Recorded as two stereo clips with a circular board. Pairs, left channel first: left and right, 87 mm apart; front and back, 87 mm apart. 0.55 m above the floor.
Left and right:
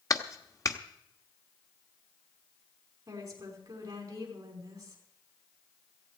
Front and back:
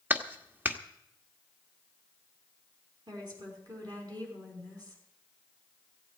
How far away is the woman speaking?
About 5.5 m.